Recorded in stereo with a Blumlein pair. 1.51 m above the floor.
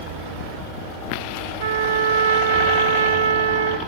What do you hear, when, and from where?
1.6 s a trumpet: 60° right, 1.9 m